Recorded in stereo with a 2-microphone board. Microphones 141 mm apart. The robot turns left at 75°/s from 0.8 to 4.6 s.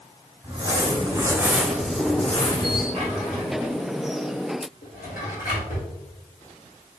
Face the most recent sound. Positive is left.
turn(degrees=75)  # may be behind; listen again after turning